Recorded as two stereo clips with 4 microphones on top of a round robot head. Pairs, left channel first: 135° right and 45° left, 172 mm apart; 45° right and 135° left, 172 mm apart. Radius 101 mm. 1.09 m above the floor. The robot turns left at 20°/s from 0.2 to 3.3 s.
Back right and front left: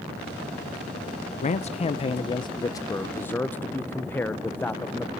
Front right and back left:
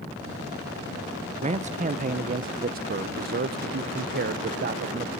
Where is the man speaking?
175° right, 0.6 m; by 5.1 s 145° left, 0.6 m.